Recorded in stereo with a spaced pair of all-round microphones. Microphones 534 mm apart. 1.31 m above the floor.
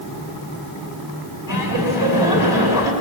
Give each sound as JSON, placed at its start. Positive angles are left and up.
{"t": 1.5, "sound": "laughter", "side_deg": 35, "distance_m": 6.5}